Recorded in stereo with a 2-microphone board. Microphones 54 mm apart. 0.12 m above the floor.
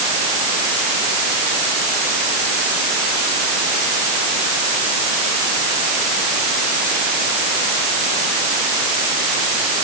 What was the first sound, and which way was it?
Only background noise.